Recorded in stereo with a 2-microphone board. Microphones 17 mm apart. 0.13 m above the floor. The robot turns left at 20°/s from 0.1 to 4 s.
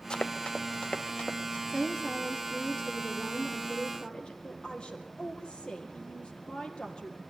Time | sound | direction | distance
0.1 | running footsteps | 40° left (ahead or behind) | 1.1 m
1.7 | a woman speaking | 135° left | 3 m
4.4 | a woman speaking | 70° left (ahead or behind) | 3.5 m